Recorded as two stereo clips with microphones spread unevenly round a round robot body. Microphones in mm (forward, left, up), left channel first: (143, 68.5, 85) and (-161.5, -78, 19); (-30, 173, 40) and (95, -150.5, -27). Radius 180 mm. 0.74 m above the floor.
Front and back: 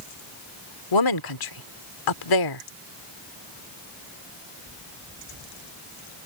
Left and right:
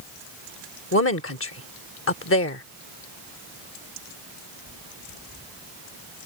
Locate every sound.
0.9 s a woman speaking: 55° left